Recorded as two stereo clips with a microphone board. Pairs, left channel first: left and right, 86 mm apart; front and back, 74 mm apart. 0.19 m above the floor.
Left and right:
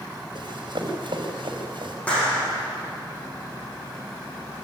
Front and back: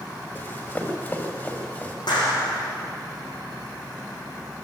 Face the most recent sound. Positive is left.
turn(degrees=15)